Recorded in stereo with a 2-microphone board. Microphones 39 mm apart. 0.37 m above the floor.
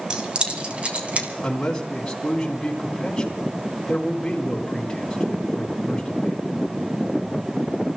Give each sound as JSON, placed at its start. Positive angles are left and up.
{"t": 0.1, "sound": "keys jangling", "side_deg": -25, "distance_m": 1.9}
{"t": 1.4, "sound": "a man speaking", "side_deg": 15, "distance_m": 3.5}